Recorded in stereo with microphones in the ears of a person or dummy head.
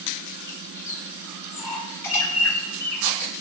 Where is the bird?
15° left (ahead or behind), 7 m.